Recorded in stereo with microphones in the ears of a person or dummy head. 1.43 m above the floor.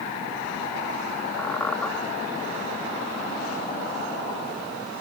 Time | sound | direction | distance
1.4 | a squeak | 10° left (ahead or behind) | ?